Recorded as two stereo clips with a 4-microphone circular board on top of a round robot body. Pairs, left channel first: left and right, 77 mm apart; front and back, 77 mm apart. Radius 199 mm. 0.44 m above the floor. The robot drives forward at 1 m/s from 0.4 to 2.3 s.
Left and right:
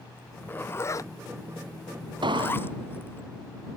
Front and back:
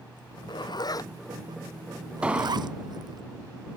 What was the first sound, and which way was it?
A zipper, 20° left.